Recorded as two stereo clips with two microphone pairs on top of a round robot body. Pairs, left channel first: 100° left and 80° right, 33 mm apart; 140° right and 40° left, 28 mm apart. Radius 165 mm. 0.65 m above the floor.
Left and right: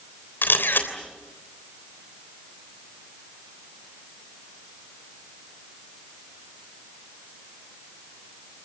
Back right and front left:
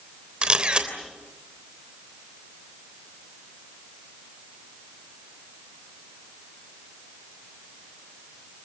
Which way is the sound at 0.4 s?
100° left.